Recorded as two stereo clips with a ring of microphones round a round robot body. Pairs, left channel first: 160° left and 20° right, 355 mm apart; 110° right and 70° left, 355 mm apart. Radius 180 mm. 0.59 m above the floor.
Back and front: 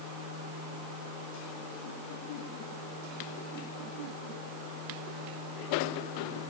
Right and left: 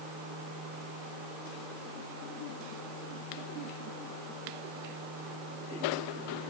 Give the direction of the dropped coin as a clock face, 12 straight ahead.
I don't hear a dropped coin.